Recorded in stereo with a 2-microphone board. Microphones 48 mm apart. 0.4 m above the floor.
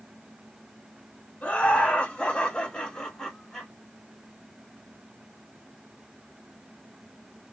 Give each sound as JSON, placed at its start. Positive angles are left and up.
{"t": 1.4, "sound": "laughter", "side_deg": 30, "distance_m": 1.4}